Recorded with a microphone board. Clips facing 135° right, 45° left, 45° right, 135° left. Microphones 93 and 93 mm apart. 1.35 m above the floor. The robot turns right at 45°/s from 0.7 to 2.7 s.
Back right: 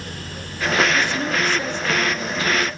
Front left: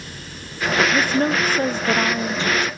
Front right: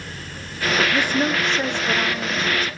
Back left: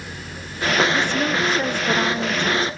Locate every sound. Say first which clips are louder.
0.9 s a woman speaking: front left 3 dB, even; 20° left, 0.5 m; by 2.7 s 100° left, 0.5 m